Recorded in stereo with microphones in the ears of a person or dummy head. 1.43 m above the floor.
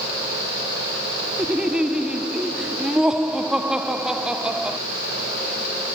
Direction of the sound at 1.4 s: 5° right (ahead or behind).